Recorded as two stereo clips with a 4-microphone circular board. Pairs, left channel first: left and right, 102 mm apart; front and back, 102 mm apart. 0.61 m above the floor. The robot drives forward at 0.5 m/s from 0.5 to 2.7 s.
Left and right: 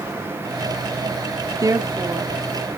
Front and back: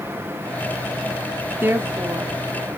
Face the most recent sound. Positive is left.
turn(degrees=-150)